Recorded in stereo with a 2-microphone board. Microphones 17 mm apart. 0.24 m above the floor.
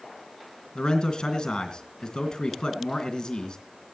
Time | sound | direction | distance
0.8 | a man speaking | 50° left (ahead or behind) | 3 m